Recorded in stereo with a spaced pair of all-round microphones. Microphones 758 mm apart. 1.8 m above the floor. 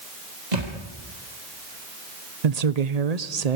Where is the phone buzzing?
No phone buzzing in this recording.